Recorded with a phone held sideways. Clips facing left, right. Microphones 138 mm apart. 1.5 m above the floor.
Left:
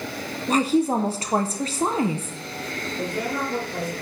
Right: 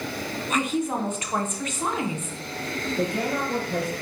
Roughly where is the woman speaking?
Left.